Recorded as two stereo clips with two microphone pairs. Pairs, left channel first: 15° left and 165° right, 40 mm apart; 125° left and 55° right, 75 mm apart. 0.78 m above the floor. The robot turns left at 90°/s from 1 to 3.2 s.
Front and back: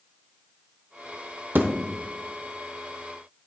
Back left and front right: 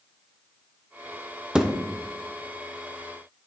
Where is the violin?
No violin in this recording.